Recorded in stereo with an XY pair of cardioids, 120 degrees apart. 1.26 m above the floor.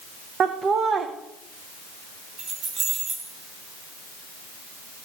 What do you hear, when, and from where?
0.4 s laughter: 45° right, 0.7 m
2.4 s keys jangling: 60° right, 4.5 m